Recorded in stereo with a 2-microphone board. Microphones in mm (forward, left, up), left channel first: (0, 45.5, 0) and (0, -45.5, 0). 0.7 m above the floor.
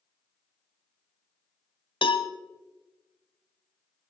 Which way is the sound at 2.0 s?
65° left (ahead or behind).